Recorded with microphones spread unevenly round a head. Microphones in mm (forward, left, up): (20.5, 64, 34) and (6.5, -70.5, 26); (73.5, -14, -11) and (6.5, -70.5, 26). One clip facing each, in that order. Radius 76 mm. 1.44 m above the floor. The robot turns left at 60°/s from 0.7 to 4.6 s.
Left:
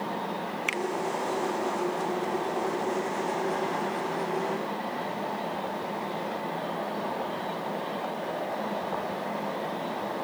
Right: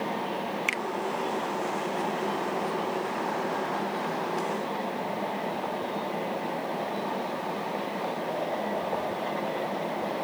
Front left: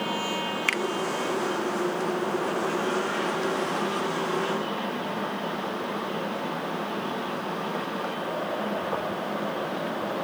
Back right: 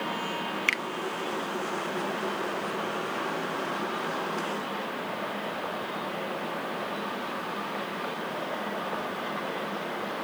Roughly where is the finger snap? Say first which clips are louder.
Left 1 dB, front left 3 dB; ahead.